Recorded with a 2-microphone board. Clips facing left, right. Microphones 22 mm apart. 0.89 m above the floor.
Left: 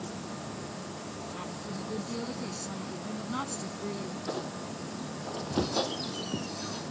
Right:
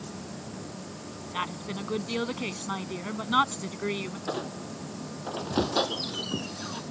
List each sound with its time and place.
1.3 s a woman speaking: 70° right (ahead or behind)
4.3 s a squeak: 25° right (ahead or behind)